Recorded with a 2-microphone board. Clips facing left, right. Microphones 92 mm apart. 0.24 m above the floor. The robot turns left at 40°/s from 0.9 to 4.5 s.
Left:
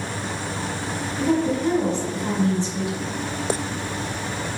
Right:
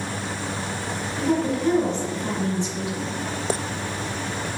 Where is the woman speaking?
160° right, 1.3 m; by 3.1 s 125° left, 1.3 m.